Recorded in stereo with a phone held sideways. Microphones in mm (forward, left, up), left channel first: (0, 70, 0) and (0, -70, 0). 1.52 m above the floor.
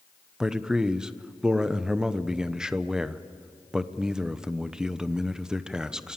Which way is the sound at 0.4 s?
5° right (ahead or behind).